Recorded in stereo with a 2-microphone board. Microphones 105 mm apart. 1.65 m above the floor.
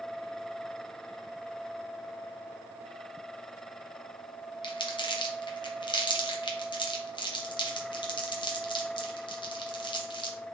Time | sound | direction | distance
4.6 | crumpling | 50° left (ahead or behind) | 0.6 m